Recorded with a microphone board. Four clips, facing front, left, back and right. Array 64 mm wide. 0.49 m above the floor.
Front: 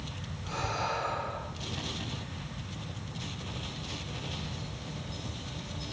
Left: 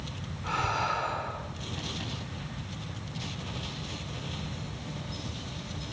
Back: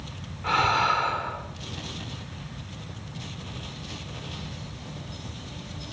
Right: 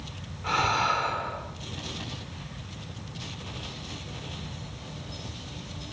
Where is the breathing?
165° right, 4 m.